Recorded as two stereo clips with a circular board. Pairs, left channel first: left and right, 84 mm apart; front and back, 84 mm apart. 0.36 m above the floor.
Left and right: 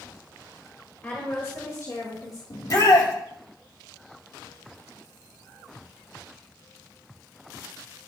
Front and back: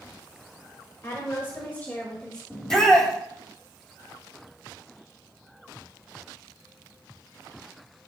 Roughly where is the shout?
Left.